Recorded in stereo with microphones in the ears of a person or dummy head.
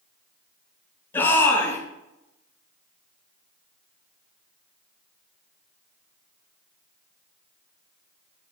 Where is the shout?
15° left (ahead or behind), 5.5 m.